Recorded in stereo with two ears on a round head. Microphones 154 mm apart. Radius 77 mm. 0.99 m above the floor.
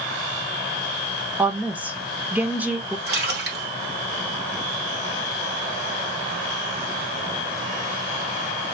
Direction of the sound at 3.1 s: 65° right (ahead or behind).